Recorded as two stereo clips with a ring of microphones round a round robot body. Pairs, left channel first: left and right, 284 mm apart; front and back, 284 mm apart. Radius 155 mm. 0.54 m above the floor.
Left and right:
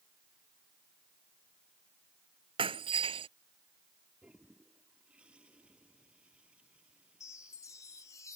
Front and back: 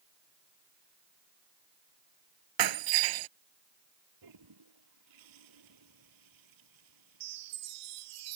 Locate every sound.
2.6 s breaking glass: 165° right
4.2 s a toilet flushing: 175° right
7.2 s a chime: 170° left